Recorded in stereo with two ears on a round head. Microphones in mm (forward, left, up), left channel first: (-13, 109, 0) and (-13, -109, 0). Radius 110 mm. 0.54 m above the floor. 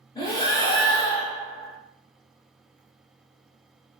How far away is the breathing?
About 0.6 m.